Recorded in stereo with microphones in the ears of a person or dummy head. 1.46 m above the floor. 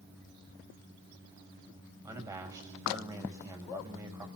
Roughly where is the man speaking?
Centre.